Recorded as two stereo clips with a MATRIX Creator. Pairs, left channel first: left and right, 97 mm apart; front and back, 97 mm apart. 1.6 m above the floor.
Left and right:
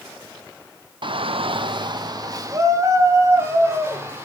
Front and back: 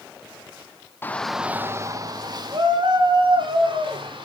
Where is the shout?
65° right, 1.0 m; by 4.3 s 155° right, 4.5 m.